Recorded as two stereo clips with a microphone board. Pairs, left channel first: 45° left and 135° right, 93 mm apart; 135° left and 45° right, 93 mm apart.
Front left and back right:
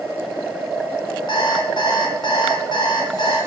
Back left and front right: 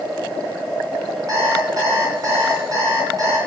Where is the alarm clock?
5° left, 3.5 m.